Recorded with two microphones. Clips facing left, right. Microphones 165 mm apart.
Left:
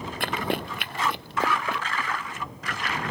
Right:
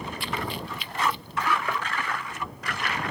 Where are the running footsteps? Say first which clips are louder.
Left 7 dB; 70° left (ahead or behind); by 1.8 s 80° left.